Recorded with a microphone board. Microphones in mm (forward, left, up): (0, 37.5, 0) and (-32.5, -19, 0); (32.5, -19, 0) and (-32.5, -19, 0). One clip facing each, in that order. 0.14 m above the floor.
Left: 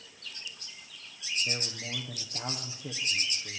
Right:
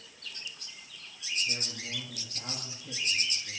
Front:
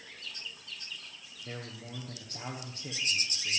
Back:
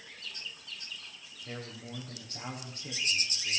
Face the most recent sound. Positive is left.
turn(degrees=70)